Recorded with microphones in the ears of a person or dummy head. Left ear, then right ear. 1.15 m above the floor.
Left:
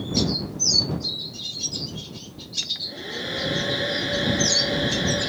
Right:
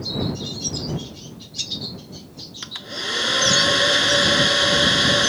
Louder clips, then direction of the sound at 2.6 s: Right 1 dB; 65° right (ahead or behind).